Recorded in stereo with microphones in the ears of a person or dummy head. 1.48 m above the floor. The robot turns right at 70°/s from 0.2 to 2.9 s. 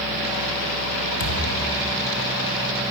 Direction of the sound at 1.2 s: 80° left.